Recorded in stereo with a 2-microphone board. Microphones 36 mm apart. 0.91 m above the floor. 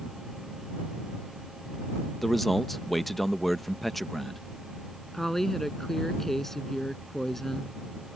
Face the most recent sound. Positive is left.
turn(degrees=5)  # may be behind; listen again after turning